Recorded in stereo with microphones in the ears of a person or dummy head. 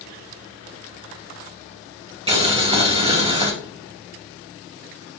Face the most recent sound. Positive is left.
turn(degrees=-30)  # may be behind; listen again after turning